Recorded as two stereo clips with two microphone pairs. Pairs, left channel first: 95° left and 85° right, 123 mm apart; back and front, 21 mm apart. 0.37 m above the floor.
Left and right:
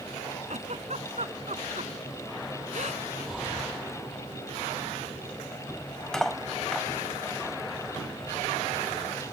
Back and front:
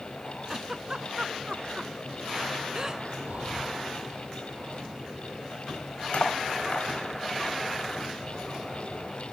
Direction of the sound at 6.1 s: 175° right.